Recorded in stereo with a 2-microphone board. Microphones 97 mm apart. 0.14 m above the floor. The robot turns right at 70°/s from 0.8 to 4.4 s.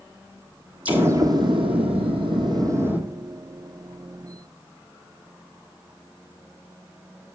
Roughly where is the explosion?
Behind.